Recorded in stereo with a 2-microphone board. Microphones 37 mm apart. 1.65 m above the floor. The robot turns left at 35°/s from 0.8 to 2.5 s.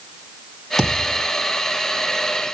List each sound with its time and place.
0.8 s a thud: centre (ahead or behind), 3 m; by 1.2 s 15° right (ahead or behind), 3 m